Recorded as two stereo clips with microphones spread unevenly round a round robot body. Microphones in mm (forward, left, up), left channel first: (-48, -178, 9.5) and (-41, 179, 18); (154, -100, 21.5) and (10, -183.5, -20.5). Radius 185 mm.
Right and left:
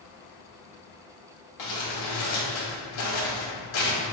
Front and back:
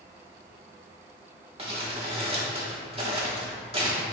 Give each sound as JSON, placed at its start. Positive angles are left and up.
{"t": 1.6, "sound": "crumpling", "azimuth_deg": -100, "distance_m": 2.0}